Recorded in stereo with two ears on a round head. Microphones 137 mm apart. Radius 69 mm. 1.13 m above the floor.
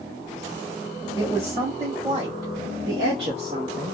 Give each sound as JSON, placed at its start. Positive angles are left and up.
{"t": 1.1, "sound": "a woman speaking", "side_deg": -20, "distance_m": 2.5}